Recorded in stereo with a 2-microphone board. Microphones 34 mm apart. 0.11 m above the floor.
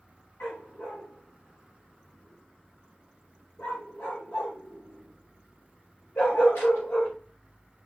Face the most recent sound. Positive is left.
turn(degrees=75)  # may be behind; listen again after turning